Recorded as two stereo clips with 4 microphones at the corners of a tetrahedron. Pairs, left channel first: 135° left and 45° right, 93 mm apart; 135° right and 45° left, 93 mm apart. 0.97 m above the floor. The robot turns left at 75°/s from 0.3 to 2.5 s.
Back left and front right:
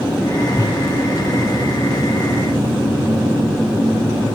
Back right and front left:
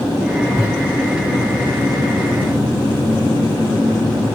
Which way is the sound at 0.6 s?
165° right.